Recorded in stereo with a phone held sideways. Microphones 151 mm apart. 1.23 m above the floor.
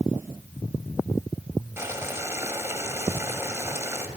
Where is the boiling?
15° right (ahead or behind), 1.5 m.